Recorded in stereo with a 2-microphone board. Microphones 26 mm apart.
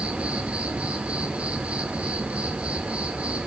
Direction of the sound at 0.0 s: 55° right (ahead or behind).